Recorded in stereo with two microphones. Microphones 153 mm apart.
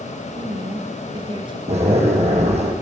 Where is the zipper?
45° right (ahead or behind), 3 m.